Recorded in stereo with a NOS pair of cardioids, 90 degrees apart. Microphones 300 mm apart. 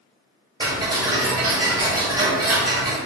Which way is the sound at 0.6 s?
15° right.